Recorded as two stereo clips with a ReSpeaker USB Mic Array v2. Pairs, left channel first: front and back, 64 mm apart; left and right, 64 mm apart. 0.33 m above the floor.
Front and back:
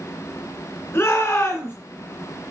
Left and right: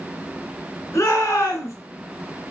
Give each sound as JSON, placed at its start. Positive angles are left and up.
{"t": 0.9, "sound": "a shout", "azimuth_deg": 50, "distance_m": 3.0}